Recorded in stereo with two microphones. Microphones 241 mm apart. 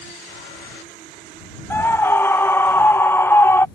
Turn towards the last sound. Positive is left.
turn(degrees=10)  # may be behind; listen again after turning